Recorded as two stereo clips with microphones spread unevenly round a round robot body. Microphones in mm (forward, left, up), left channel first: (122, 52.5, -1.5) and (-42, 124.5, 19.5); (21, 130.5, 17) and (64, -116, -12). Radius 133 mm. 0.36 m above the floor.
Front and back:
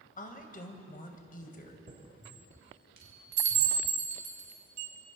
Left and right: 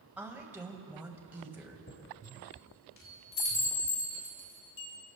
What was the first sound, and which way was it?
A woman speaking, straight ahead.